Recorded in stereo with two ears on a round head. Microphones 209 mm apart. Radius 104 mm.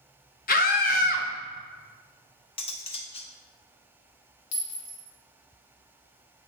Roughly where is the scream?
Left.